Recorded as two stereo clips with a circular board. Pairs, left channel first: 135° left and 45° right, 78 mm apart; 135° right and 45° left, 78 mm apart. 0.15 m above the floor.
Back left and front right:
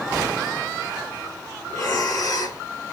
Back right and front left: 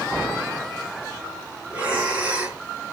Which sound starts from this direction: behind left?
Breathing, at 1.7 s.